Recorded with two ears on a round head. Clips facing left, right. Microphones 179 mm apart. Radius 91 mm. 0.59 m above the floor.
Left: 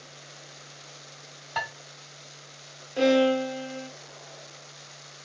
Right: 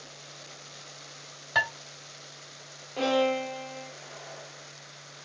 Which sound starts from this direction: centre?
A violin, at 3.0 s.